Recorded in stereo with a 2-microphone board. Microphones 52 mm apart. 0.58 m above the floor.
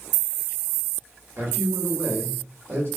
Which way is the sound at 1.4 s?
55° right (ahead or behind).